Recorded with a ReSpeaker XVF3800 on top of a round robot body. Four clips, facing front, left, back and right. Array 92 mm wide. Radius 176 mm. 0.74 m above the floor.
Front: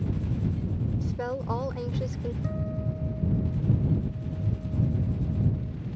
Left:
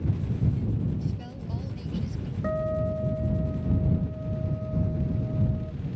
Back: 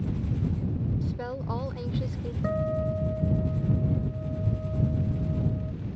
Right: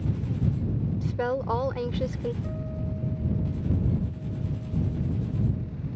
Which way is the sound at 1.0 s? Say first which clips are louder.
Right 9 dB, front 2 dB; 75° right.